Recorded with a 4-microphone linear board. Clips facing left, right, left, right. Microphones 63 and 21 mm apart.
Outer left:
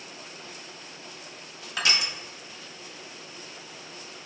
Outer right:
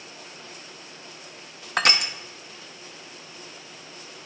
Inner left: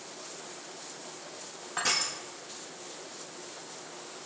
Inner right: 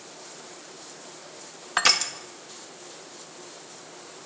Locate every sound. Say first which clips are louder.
1.8 s crushing: outer right 5 dB, inner right 8 dB; 55° right (ahead or behind), 0.6 m